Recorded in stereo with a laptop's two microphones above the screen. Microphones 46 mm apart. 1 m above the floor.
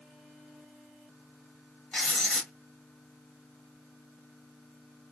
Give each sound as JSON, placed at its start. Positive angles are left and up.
{"t": 1.9, "sound": "writing", "side_deg": 15, "distance_m": 1.7}